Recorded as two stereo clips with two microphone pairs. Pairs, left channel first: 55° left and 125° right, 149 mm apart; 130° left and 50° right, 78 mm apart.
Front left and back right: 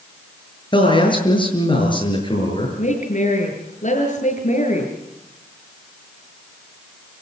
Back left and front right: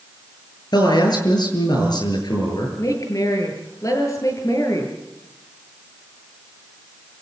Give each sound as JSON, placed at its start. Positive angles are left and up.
{"t": 0.7, "sound": "a man speaking", "azimuth_deg": 110, "distance_m": 7.5}
{"t": 2.8, "sound": "a woman speaking", "azimuth_deg": 90, "distance_m": 7.5}